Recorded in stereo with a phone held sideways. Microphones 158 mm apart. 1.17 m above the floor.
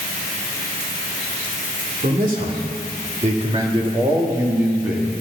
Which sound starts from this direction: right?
A man speaking, at 2.0 s.